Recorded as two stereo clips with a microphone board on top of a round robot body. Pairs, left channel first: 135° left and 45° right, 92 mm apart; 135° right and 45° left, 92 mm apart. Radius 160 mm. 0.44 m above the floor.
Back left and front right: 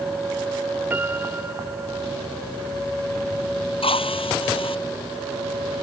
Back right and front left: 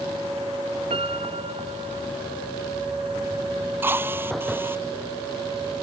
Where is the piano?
25° left.